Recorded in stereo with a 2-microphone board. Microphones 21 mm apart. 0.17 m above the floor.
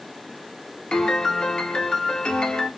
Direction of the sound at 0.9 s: 50° left (ahead or behind).